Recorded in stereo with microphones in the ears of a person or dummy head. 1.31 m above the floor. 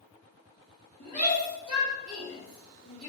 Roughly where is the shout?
Left.